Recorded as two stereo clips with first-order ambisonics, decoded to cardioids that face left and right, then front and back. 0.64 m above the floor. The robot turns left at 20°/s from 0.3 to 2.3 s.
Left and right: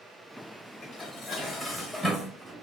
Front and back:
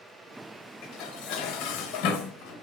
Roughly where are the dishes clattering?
Ahead left.